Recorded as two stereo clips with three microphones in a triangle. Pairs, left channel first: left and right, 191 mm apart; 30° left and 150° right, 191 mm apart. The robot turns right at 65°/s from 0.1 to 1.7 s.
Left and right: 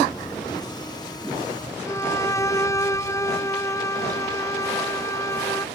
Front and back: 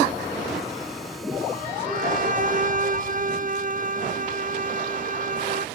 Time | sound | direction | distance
1.9 | a violin | 165° left | ?